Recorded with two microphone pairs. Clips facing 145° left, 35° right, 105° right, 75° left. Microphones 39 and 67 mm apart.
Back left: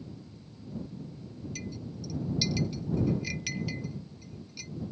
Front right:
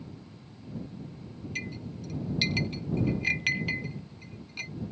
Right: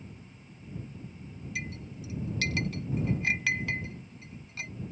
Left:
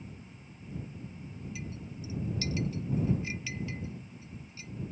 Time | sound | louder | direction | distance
1.6 | a clink | front right 6 dB, right 3 dB | 80° right | ?